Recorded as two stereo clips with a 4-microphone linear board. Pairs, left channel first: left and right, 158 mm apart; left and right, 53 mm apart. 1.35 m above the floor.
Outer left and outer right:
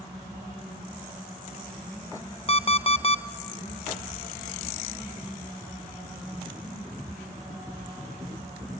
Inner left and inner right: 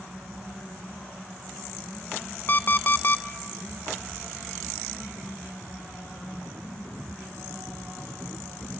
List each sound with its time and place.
2.5 s an alarm clock: 40° left (ahead or behind), 0.5 m